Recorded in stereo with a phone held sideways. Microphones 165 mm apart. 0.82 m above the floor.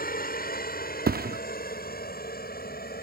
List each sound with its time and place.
0.0 s a helicopter: 65° left (ahead or behind); by 3.0 s 70° left (ahead or behind)
1.1 s a thud: 70° right (ahead or behind)